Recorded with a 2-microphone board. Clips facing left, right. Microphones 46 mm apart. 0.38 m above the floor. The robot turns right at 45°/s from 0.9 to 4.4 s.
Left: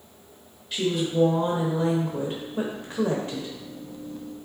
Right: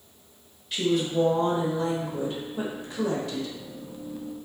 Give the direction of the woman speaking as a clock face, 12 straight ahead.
12 o'clock.